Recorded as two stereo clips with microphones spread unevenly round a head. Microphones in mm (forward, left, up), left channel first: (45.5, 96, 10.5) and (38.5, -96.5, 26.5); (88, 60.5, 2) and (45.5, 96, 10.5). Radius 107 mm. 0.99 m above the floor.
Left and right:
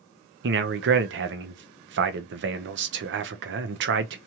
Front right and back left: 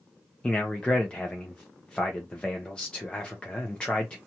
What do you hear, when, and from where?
0.4 s a man speaking: 110° right, 0.5 m